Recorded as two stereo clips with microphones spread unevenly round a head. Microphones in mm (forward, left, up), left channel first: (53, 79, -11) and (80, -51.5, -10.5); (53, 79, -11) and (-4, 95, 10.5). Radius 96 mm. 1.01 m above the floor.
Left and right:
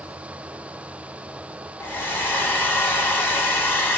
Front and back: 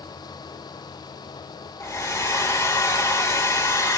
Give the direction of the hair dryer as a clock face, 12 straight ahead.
11 o'clock.